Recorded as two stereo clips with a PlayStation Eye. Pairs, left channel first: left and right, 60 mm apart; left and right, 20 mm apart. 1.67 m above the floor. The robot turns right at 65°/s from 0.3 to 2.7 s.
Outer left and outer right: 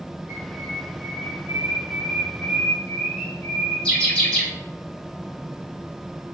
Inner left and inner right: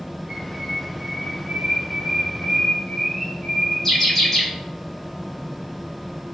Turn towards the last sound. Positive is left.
turn(degrees=15)  # may be behind; listen again after turning